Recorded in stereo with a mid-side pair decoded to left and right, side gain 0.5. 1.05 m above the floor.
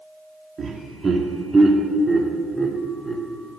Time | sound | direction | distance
0.6 | laughter | 35° right | 2 m